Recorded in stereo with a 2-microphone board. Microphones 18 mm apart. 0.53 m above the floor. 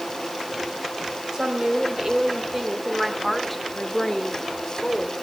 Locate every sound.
1.3 s a woman speaking: 45° right (ahead or behind), 3 m; by 5.1 s 45° left (ahead or behind), 2 m